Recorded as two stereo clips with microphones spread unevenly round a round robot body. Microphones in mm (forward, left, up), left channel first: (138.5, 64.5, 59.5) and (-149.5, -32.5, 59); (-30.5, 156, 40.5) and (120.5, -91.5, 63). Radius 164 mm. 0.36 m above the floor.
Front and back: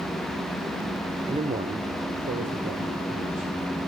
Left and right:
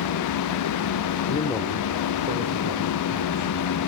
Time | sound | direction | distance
1.3 | a man speaking | 135° left | 1.3 m